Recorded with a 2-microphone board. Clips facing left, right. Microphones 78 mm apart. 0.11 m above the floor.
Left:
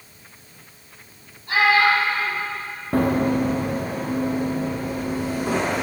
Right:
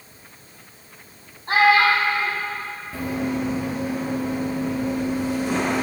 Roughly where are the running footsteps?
Left.